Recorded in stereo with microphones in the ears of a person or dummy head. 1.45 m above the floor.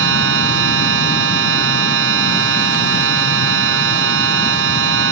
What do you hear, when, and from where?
0.0 s a machine running: 80° right